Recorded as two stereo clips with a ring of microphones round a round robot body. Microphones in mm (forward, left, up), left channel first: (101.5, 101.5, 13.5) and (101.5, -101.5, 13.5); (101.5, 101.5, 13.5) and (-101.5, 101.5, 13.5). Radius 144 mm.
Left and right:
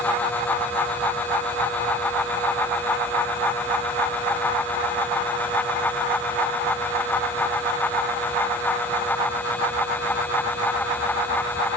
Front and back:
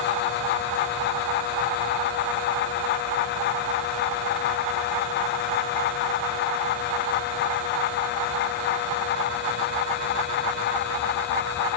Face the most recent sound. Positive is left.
No sound to turn to.